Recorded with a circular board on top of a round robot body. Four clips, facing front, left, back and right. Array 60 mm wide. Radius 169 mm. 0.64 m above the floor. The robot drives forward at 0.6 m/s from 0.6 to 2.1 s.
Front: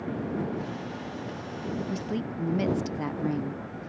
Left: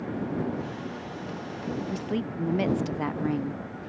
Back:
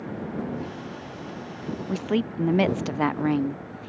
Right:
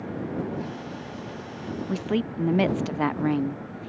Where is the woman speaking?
140° right; by 3.9 s 155° right.